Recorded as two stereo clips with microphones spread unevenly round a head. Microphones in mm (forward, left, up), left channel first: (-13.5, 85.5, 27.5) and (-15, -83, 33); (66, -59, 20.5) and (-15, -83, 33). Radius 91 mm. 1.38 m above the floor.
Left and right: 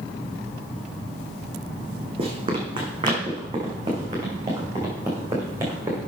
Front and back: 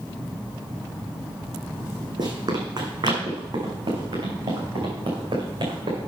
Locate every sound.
2.2 s running footsteps: 145° right, 4 m; by 6.0 s 165° right, 5.5 m